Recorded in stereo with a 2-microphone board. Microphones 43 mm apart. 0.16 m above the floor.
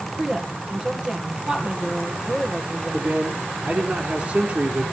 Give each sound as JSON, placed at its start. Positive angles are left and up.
{"t": 0.2, "sound": "a woman speaking", "side_deg": -25, "distance_m": 3.5}
{"t": 2.9, "sound": "a man speaking", "side_deg": -40, "distance_m": 1.7}